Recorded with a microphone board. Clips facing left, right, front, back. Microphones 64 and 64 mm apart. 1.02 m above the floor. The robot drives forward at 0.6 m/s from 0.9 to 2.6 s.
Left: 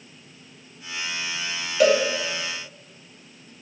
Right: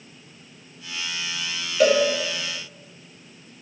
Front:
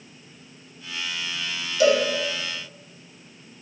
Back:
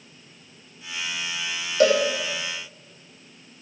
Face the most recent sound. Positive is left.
turn(degrees=180)